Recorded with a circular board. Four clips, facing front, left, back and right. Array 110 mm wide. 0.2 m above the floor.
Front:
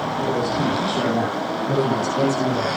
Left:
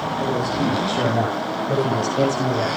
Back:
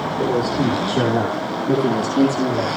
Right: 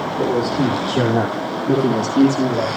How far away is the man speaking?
About 6.5 m.